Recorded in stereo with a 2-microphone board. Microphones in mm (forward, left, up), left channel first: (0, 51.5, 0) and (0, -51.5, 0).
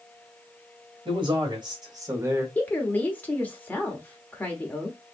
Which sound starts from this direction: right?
A man speaking, at 1.1 s.